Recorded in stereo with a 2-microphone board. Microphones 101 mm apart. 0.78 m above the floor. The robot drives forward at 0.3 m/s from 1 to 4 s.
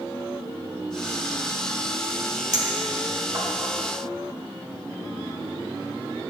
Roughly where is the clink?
Right.